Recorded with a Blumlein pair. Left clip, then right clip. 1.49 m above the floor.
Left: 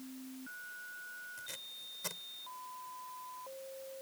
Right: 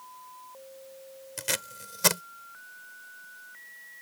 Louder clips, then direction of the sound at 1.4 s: Right 12 dB; 40° right.